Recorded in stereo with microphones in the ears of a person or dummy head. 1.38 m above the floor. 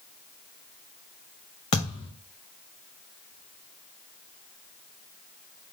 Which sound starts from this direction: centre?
A thud, at 1.7 s.